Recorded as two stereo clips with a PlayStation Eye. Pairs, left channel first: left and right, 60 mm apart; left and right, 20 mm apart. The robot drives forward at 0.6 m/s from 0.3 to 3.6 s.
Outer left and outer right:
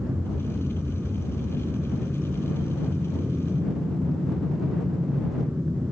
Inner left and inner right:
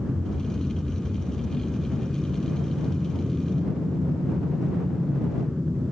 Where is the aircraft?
30° right (ahead or behind); by 5.9 s 25° right (ahead or behind).